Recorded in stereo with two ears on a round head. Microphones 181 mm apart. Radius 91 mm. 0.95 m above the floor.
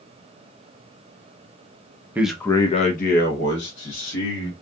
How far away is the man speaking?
About 0.5 m.